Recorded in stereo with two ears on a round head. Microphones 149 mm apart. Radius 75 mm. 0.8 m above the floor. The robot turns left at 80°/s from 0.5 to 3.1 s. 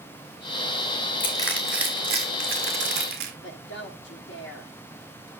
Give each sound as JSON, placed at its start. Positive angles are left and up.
{"t": 1.2, "sound": "crushing", "side_deg": 35, "distance_m": 3.0}
{"t": 3.4, "sound": "a woman speaking", "side_deg": 75, "distance_m": 1.7}